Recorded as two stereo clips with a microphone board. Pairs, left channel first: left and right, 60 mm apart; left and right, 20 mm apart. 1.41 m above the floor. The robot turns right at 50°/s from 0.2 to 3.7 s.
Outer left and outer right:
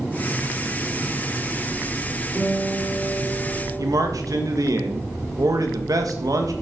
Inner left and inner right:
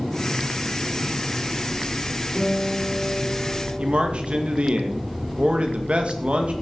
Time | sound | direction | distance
2.4 | a guitar | 40° left | 5 m
3.8 | a man speaking | 75° right (ahead or behind) | 1.8 m